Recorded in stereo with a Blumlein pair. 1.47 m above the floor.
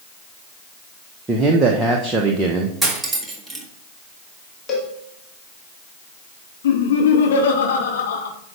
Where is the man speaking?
15° right, 1.3 m.